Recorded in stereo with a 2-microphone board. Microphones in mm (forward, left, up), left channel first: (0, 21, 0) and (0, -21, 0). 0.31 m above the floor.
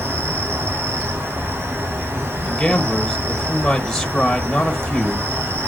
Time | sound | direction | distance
0.0 | an insect | 75° right (ahead or behind) | 3 m
2.4 | a man speaking | 15° left (ahead or behind) | 1.1 m